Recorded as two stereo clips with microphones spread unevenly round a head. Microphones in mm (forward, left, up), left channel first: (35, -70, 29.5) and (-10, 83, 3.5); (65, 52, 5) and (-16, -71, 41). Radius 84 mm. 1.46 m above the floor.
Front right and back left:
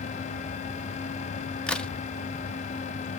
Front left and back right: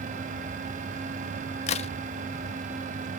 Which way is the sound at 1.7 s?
5° left.